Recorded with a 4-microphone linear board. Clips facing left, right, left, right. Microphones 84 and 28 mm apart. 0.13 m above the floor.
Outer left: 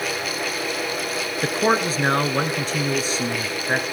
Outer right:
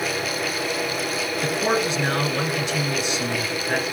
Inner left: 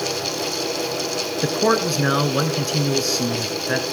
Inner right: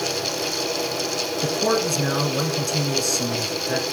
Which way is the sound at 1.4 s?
35° left (ahead or behind).